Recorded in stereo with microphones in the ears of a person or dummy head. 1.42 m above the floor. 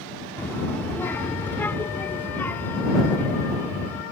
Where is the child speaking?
5° left (ahead or behind); by 4.0 s 10° left (ahead or behind).